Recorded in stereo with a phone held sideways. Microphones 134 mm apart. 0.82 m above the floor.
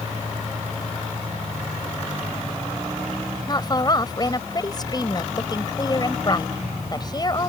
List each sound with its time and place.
3.5 s a woman speaking: 30° left (ahead or behind)